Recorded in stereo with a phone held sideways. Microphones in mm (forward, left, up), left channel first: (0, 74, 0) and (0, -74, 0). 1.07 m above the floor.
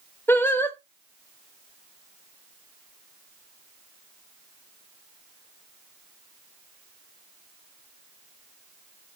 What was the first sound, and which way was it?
Singing, 15° left (ahead or behind).